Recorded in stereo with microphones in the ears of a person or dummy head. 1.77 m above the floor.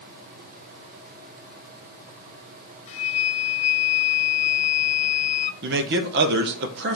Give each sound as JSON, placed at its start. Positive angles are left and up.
{"t": 2.9, "sound": "a flute", "side_deg": 35, "distance_m": 0.6}
{"t": 5.6, "sound": "a man speaking", "side_deg": -60, "distance_m": 1.0}